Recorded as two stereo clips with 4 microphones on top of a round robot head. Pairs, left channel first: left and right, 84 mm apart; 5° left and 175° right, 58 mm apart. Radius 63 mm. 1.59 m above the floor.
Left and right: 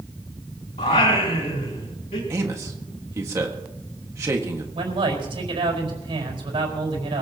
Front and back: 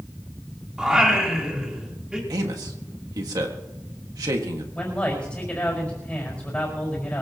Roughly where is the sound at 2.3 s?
Behind right.